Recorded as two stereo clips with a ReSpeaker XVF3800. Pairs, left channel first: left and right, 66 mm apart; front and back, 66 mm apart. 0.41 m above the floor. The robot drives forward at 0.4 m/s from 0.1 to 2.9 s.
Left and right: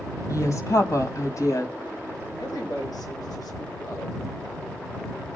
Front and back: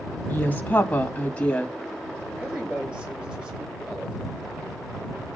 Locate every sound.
0.3 s a woman speaking: 60° left, 3 m; by 1.8 s 70° left, 2.5 m
2.4 s a woman speaking: 105° left, 9 m